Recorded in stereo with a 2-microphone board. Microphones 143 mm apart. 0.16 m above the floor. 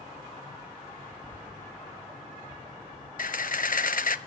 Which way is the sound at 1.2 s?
25° right (ahead or behind).